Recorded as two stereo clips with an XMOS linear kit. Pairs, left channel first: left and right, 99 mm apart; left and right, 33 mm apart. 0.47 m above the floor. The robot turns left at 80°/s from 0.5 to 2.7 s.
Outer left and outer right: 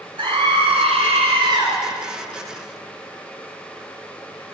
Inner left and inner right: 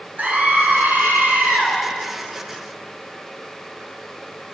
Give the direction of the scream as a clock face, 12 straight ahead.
2 o'clock.